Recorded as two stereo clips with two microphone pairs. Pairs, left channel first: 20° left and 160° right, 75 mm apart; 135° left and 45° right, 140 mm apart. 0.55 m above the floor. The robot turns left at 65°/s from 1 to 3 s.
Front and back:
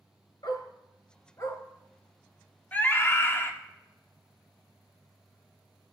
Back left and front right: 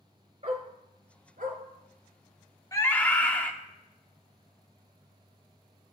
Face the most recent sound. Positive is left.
turn(degrees=60)